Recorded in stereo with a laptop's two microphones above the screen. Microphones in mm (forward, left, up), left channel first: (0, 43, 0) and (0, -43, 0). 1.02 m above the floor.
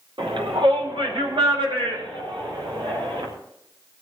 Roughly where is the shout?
Right.